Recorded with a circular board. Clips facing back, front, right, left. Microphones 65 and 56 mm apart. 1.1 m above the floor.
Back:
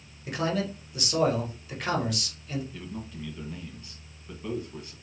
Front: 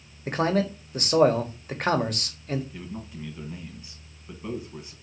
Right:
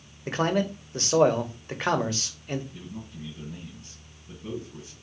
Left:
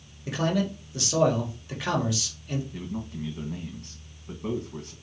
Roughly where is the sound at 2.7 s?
Left.